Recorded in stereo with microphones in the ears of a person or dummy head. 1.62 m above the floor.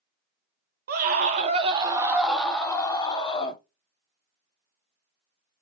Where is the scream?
55° right (ahead or behind), 1.0 m; by 3.6 s 30° left (ahead or behind), 1.2 m.